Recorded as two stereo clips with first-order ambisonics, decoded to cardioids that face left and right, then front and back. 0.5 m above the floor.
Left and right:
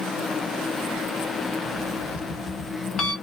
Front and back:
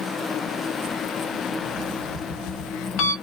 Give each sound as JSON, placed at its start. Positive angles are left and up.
{"t": 1.6, "sound": "an alarm clock", "azimuth_deg": 35, "distance_m": 1.1}